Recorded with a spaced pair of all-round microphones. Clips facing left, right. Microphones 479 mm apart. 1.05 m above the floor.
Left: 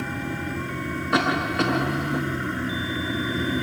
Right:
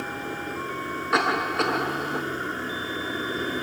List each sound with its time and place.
0.0 s a vehicle: 40° left (ahead or behind)
1.1 s a cough: 50° left (ahead or behind)